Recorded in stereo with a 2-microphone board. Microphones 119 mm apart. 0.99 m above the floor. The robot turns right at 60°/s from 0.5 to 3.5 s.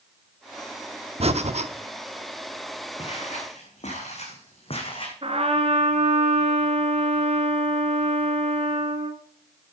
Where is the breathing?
60° right (ahead or behind), 0.9 m; by 1.7 s 70° right (ahead or behind), 0.9 m.